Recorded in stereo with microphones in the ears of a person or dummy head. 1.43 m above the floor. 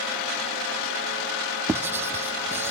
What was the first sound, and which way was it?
Writing, 10° right (ahead or behind).